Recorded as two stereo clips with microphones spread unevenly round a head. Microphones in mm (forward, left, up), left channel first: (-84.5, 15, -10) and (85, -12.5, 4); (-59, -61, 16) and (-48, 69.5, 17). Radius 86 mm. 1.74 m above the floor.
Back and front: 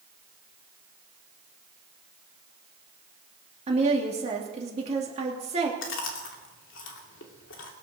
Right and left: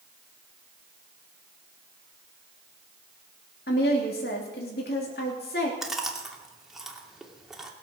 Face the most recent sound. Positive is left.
turn(degrees=170)